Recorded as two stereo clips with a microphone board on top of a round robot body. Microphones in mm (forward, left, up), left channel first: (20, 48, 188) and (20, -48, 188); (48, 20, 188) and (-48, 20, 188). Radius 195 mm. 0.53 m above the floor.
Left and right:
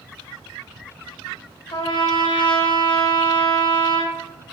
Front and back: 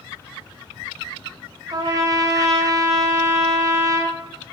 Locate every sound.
1.7 s a trumpet: 130° left, 0.5 m